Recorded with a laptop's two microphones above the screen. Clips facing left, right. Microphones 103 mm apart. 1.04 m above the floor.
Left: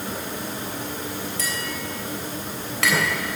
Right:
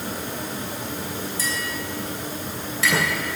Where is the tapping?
75° left (ahead or behind), 3.5 m.